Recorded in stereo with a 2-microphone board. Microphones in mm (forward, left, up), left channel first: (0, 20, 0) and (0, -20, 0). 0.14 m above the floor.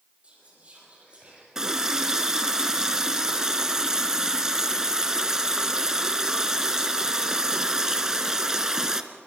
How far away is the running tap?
About 1.1 m.